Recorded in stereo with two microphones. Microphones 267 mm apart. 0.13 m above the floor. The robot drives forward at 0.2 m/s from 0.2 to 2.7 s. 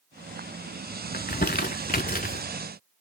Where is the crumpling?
35° left (ahead or behind), 0.6 m; by 2.4 s 30° left (ahead or behind), 0.6 m.